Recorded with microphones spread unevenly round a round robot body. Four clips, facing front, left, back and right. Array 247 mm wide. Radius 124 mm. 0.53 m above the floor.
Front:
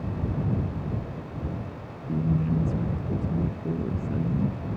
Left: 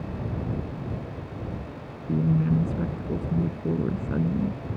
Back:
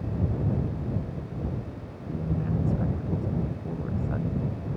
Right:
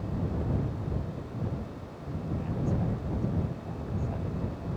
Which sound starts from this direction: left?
A woman speaking, at 2.1 s.